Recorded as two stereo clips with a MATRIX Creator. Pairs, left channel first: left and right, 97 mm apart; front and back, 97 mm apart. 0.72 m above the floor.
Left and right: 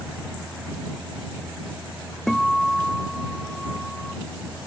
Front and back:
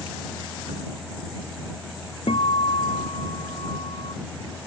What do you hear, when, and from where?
2.3 s a guitar: 5° left